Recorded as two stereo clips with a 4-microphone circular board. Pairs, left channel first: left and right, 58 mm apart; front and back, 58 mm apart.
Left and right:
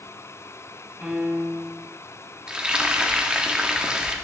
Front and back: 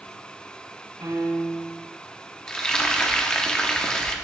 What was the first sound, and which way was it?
A piano, 165° right.